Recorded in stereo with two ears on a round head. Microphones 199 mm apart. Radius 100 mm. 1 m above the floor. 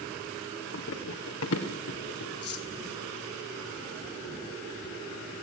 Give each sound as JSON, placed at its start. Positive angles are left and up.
{"t": 0.7, "sound": "running footsteps", "side_deg": 60, "distance_m": 2.5}
{"t": 2.4, "sound": "cutlery clinking", "side_deg": 50, "distance_m": 3.5}